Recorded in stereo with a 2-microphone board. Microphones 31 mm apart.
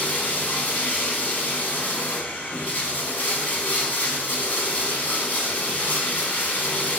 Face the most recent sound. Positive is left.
turn(degrees=75)  # may be behind; listen again after turning